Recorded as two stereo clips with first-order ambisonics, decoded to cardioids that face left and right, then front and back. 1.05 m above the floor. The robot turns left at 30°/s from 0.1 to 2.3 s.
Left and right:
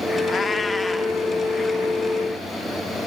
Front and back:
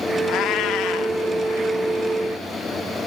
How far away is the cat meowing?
About 0.7 m.